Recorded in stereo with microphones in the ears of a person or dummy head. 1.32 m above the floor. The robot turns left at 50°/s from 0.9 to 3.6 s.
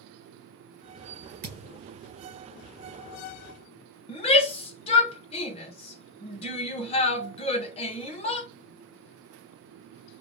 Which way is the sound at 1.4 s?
45° right (ahead or behind).